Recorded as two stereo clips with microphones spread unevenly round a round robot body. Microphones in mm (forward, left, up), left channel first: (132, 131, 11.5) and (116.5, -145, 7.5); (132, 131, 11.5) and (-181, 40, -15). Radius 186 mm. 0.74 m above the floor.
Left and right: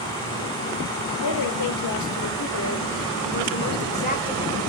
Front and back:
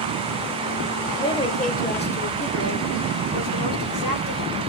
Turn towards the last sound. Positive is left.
turn(degrees=20)